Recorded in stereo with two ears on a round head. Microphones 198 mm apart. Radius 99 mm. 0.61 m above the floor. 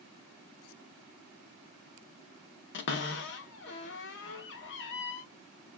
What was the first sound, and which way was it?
A cupboard door, 55° left (ahead or behind).